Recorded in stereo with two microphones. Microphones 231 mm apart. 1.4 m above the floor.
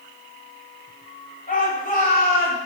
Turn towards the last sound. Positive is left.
turn(degrees=40)  # may be behind; listen again after turning